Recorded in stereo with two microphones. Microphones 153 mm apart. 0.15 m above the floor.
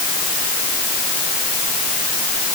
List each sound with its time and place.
Only background noise.